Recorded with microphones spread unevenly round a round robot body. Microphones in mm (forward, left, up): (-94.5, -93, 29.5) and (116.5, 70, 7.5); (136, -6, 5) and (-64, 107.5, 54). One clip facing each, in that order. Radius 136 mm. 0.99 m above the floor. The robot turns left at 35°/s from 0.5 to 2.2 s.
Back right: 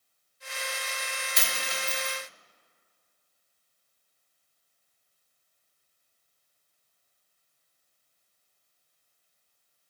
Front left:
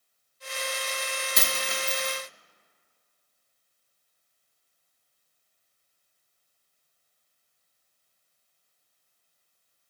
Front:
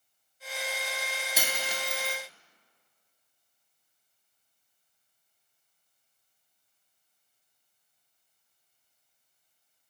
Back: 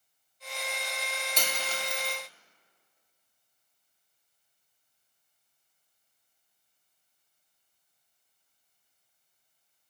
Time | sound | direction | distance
1.4 | a dropped coin | 65° left | 0.6 m